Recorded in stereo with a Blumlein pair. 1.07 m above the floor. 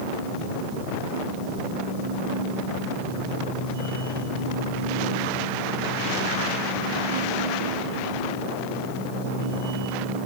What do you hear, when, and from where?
0.0 s a machine running: 65° right, 7.5 m